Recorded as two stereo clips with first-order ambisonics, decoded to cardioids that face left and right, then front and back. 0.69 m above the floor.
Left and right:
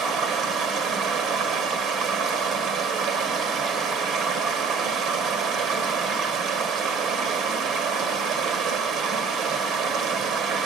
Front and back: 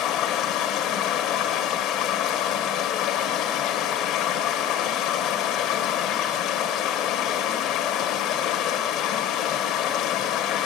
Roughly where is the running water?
Ahead right.